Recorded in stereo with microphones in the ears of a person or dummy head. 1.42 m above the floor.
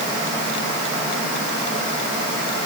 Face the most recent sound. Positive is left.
No sound to turn to.